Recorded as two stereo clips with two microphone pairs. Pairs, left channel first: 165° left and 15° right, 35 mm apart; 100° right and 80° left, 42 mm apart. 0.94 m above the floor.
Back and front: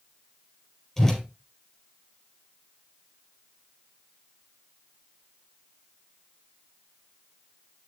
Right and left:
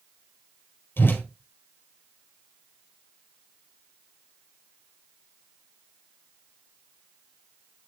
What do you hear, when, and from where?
1.0 s a whoosh: 115° right, 4 m